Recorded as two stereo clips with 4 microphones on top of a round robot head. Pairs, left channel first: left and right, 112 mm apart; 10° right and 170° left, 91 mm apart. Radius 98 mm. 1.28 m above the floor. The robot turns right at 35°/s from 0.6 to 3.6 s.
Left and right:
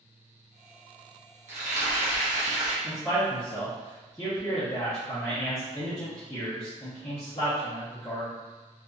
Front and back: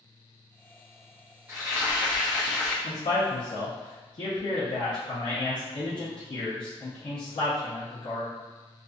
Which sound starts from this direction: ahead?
A man speaking, at 2.8 s.